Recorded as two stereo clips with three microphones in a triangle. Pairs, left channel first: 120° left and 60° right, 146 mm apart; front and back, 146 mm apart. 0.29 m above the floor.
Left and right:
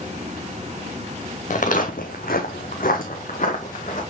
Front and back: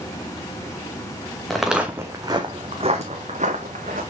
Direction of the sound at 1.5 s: 85° left.